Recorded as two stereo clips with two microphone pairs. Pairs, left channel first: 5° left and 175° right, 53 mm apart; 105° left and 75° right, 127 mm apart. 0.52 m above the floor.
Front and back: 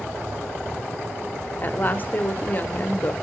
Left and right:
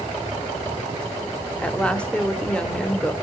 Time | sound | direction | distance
1.6 | a woman speaking | 30° left | 0.8 m